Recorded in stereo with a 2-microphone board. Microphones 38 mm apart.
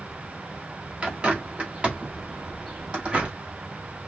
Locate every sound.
1.0 s a bird: 35° right (ahead or behind), 1.8 m